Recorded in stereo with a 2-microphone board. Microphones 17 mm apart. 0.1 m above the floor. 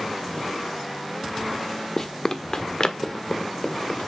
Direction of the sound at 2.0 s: 30° left (ahead or behind).